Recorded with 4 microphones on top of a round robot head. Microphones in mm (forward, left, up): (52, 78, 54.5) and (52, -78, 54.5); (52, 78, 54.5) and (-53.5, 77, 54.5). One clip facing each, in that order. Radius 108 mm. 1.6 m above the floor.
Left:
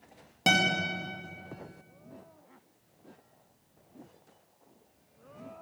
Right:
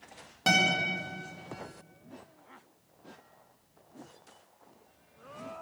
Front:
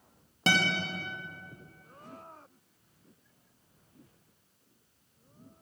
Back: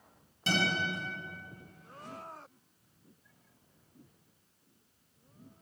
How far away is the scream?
No scream in this recording.